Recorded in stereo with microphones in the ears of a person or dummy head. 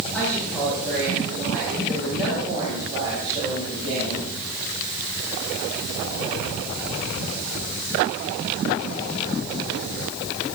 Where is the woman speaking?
5° left (ahead or behind), 9 m; by 4.3 s 35° right (ahead or behind), 8 m.